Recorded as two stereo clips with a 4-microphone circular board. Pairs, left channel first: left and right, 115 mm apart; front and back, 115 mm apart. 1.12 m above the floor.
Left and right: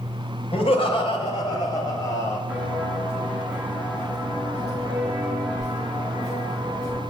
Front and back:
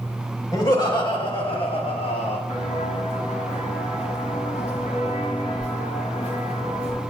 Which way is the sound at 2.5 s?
10° right.